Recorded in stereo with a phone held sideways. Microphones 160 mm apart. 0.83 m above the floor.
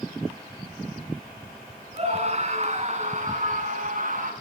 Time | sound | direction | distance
1.9 | a scream | 45° right (ahead or behind) | 9 m